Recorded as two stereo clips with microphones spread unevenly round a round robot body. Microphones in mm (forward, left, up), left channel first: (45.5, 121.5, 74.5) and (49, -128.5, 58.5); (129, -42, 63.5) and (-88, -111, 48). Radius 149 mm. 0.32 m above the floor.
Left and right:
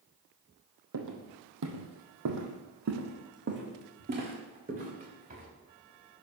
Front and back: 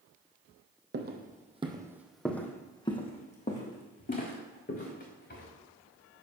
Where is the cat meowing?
I don't hear a cat meowing.